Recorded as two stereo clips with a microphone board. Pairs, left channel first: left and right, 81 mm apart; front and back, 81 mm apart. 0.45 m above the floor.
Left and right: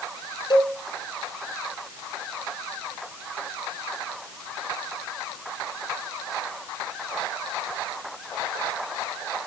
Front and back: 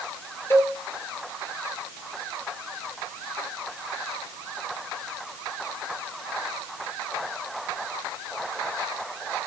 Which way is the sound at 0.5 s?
60° left.